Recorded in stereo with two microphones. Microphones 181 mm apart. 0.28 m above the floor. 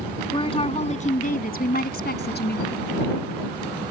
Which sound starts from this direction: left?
A woman speaking, at 0.3 s.